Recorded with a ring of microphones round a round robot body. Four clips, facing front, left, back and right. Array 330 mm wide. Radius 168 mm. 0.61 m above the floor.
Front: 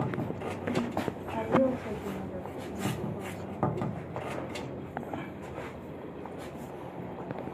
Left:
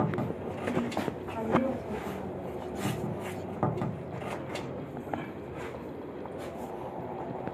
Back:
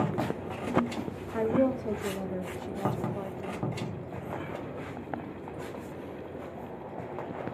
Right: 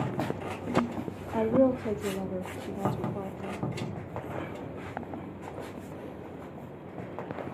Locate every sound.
1.3 s a woman speaking: 115° right, 1.0 m